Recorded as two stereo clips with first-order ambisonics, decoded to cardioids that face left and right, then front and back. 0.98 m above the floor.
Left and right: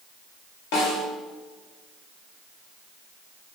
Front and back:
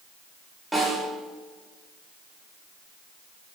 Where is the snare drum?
95° left, 2.5 m.